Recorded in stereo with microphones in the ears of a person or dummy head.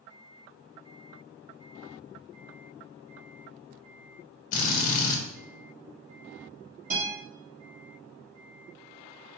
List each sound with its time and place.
4.5 s a drill: 45° left (ahead or behind), 1.1 m
6.9 s a guitar: 45° right (ahead or behind), 1.5 m